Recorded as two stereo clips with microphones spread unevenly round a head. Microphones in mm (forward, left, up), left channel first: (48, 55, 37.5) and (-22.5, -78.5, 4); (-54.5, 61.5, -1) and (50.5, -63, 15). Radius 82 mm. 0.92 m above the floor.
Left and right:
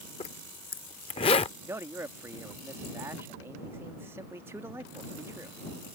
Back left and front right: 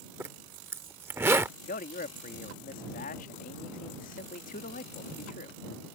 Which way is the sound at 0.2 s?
20° left.